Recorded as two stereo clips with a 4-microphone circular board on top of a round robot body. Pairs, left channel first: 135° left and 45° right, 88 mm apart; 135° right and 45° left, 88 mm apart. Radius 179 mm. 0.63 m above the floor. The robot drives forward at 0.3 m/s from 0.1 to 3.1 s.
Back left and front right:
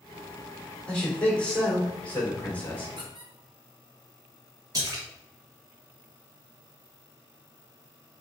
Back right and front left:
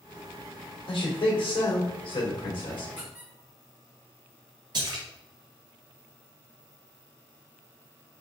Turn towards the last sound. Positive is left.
turn(degrees=5)